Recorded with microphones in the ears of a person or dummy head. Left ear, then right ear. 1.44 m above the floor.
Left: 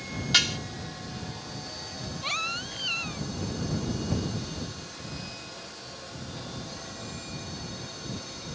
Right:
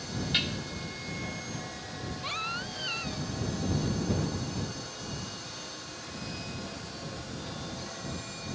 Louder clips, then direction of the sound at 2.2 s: Left 4 dB; 20° left (ahead or behind).